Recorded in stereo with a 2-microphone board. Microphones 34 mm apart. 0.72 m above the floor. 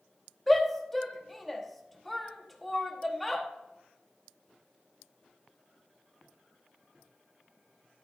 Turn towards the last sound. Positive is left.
turn(degrees=0)  # may be behind; listen again after turning